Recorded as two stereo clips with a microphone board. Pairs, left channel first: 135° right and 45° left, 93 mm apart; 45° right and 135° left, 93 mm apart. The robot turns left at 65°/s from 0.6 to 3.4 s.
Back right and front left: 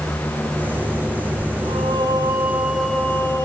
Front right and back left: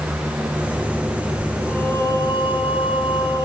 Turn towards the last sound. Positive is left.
turn(degrees=-85)